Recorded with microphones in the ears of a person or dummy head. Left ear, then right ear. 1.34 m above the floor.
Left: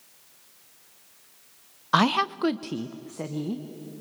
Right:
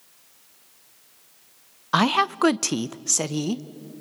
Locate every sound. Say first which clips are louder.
1.9 s a woman speaking: right 2 dB; 5° left (ahead or behind), 0.6 m; by 3.6 s 85° right, 1.0 m